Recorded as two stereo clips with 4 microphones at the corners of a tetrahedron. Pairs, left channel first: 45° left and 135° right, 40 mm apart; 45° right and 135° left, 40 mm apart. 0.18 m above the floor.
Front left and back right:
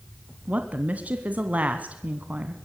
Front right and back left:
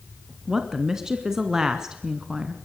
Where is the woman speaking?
155° right, 1.6 m.